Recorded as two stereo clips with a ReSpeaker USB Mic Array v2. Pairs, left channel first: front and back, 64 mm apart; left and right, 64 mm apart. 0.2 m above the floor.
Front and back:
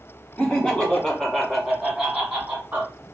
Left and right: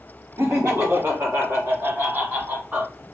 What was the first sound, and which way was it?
Laughter, 65° right.